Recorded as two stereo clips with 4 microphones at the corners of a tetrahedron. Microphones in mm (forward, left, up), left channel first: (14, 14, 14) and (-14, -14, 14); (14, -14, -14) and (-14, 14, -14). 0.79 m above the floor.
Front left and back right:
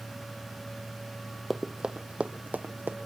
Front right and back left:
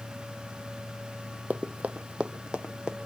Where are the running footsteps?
140° left, 0.9 m; by 3.0 s 155° right, 1.6 m.